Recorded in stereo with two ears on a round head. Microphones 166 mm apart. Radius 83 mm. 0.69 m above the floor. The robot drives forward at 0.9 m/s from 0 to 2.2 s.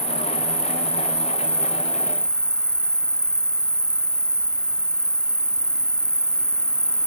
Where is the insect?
5° left (ahead or behind).